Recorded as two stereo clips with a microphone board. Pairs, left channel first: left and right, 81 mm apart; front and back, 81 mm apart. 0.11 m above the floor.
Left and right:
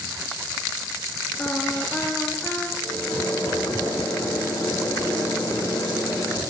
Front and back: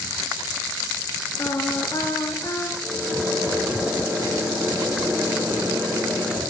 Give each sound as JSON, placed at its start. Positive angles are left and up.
{"t": 1.4, "sound": "singing", "azimuth_deg": 25, "distance_m": 1.0}
{"t": 2.8, "sound": "a microwave", "azimuth_deg": 110, "distance_m": 3.0}